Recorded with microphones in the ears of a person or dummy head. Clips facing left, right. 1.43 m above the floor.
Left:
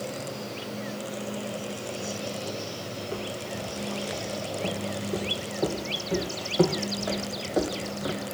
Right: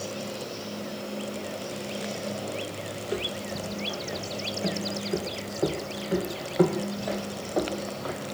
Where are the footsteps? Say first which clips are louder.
Right 3 dB; 25° right (ahead or behind), 4 m; by 8.2 s 15° left (ahead or behind), 2.5 m.